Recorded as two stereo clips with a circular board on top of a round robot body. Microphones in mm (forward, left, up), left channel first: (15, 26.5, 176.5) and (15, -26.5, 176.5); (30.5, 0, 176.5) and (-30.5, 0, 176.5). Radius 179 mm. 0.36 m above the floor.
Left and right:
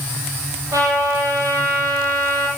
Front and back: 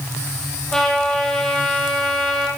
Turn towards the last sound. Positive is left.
turn(degrees=-80)